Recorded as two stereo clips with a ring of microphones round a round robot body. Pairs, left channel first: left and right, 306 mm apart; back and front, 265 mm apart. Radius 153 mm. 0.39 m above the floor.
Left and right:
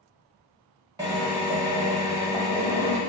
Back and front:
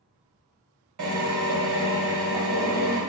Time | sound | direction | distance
1.0 | a drill | 15° right | 1.3 m